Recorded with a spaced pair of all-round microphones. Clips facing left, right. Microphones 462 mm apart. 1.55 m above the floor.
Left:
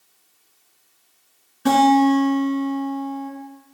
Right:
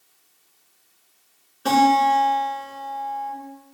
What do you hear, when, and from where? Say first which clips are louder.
1.6 s a guitar: left 6 dB; 40° left (ahead or behind), 3 m